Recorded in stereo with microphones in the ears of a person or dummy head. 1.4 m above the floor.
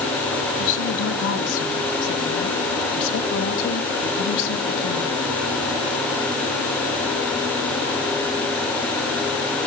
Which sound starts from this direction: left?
A woman speaking, at 0.6 s.